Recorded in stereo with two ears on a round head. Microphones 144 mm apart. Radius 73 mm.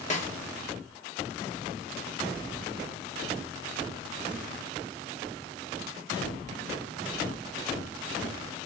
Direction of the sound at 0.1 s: 45° left (ahead or behind).